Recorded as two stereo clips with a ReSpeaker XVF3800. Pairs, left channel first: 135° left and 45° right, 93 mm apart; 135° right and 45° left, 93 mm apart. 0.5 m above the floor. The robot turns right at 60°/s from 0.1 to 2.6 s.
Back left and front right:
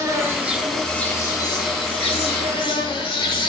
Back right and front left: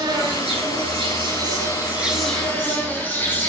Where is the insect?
5° left, 0.9 m; by 3.5 s 155° left, 0.9 m.